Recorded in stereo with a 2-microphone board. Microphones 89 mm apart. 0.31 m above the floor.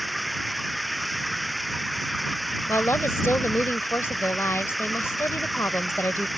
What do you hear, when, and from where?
0.0 s running water: centre (ahead or behind)
2.7 s a woman speaking: 30° left (ahead or behind)